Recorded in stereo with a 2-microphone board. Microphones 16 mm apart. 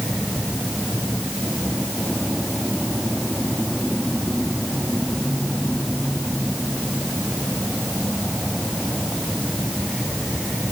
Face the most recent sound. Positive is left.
No sound to turn to.